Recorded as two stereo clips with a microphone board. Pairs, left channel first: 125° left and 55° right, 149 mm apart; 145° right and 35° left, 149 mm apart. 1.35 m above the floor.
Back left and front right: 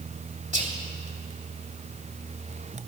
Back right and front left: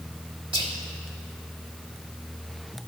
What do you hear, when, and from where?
0.5 s whispering: 20° right, 2.5 m